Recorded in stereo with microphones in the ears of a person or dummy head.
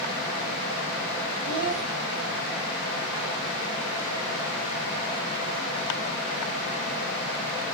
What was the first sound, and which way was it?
A child speaking, 55° right (ahead or behind).